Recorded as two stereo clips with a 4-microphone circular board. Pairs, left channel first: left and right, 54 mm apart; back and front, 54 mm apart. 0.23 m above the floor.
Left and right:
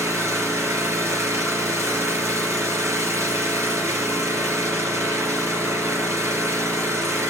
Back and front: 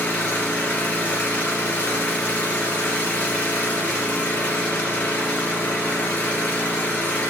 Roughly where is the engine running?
Behind right.